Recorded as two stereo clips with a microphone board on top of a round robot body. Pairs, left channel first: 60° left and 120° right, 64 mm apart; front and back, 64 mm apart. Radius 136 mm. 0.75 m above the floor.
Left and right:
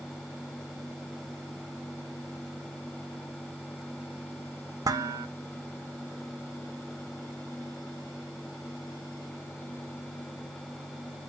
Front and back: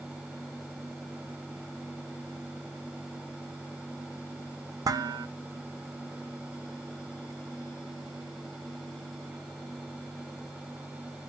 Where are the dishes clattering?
150° right, 0.6 m.